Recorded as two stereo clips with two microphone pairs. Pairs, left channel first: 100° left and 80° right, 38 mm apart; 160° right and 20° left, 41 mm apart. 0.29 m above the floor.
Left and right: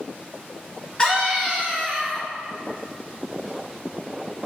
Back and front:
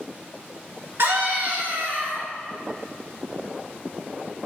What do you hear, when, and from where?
1.0 s a scream: 35° left, 3.5 m; by 2.3 s 40° left, 4.5 m